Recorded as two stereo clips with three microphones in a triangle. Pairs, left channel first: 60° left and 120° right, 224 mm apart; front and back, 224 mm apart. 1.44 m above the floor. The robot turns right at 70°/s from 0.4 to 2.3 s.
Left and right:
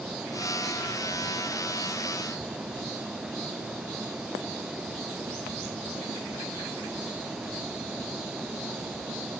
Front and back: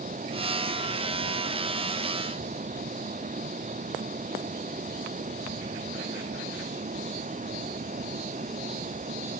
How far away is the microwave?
No microwave in this recording.